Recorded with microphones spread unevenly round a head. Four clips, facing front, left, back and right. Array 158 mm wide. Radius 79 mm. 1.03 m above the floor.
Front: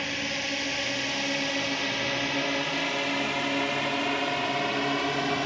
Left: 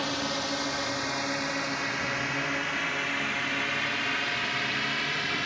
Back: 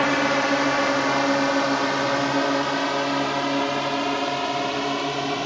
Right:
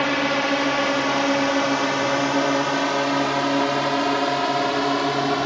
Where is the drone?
140° right; by 5.5 s 100° right.